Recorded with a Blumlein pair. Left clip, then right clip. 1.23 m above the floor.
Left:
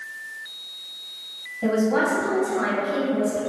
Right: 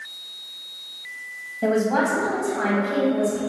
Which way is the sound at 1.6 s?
20° right.